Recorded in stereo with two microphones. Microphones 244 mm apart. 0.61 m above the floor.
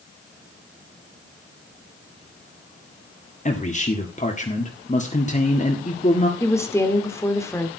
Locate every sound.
3.5 s a man speaking: 30° left (ahead or behind), 1.6 m
6.4 s a woman speaking: 10° left (ahead or behind), 1.8 m